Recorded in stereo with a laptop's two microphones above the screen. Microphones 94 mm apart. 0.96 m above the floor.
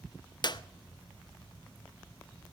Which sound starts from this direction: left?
A clap, at 0.4 s.